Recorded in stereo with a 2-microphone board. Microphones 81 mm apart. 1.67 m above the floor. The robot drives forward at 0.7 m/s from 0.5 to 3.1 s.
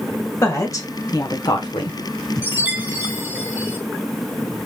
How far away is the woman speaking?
About 1.6 m.